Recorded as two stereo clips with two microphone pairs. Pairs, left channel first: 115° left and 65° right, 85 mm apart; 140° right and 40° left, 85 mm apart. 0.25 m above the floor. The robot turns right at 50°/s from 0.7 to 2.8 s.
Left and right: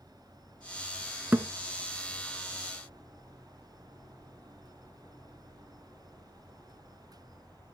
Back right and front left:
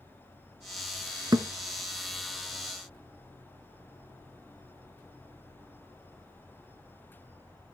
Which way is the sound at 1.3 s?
5° left.